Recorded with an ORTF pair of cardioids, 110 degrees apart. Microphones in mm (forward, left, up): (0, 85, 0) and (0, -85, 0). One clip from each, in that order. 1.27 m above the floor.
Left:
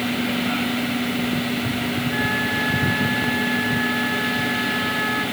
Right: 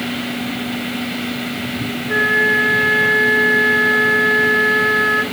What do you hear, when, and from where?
2.1 s a flute: 65° right, 3 m